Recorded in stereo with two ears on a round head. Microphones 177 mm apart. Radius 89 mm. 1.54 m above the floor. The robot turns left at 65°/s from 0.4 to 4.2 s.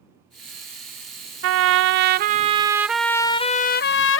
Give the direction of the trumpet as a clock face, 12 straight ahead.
3 o'clock.